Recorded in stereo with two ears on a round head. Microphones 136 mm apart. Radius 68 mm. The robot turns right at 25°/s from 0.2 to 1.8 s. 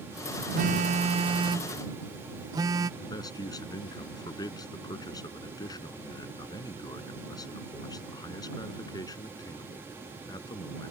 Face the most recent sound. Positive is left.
turn(degrees=25)  # may be behind; listen again after turning